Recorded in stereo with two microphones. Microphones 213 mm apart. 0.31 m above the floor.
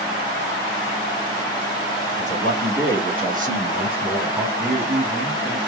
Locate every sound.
2.2 s a man speaking: 55° right (ahead or behind), 3 m; by 4.5 s 15° right (ahead or behind), 2.5 m
4.6 s a man speaking: 35° right (ahead or behind), 2 m